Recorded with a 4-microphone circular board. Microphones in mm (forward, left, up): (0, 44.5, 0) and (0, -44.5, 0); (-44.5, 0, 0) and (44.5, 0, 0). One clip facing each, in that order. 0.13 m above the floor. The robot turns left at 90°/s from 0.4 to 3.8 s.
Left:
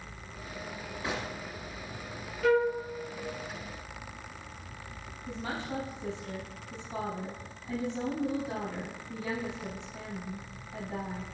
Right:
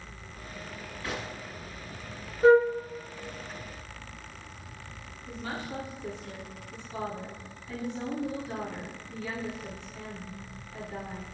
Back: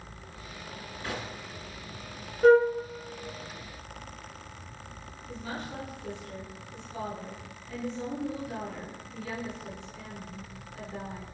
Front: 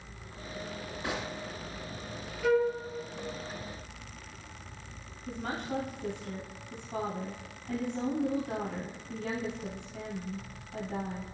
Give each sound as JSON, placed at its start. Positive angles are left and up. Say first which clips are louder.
{"t": 1.0, "sound": "a gunshot", "louder": "left 1 dB, front 1 dB", "azimuth_deg": 50, "distance_m": 1.6}
{"t": 2.4, "sound": "a flute", "louder": "right 6 dB, back 8 dB", "azimuth_deg": -140, "distance_m": 1.0}
{"t": 5.3, "sound": "a woman speaking", "louder": "left 1 dB, front 3 dB", "azimuth_deg": 25, "distance_m": 3.5}